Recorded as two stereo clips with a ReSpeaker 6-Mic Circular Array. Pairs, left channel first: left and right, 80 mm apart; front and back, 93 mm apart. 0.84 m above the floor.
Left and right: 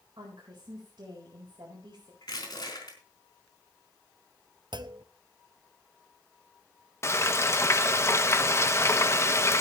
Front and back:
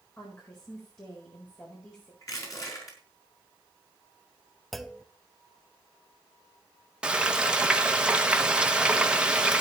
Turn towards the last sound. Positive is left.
turn(degrees=110)